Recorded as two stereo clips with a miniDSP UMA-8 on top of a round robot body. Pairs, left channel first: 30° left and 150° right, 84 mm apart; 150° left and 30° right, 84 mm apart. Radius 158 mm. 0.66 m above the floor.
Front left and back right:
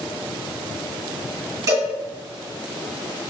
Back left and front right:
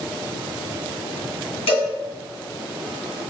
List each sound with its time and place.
1.7 s a cowbell: 160° left, 1.9 m